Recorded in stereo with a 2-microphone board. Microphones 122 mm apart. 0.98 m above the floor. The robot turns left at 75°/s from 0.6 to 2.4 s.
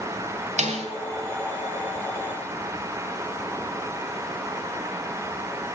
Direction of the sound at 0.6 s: 80° right.